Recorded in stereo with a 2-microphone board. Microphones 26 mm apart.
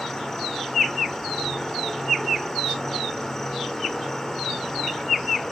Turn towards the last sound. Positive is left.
turn(degrees=20)  # may be behind; listen again after turning